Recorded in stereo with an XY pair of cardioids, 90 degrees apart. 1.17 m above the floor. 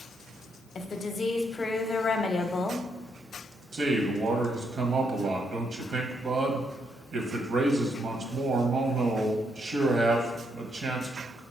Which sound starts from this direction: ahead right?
A man speaking, at 3.7 s.